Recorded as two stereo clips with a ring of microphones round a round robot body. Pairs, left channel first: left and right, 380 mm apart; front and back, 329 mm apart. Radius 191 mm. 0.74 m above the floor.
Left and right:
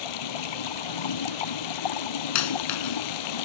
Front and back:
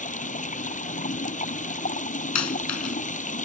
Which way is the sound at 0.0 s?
70° left.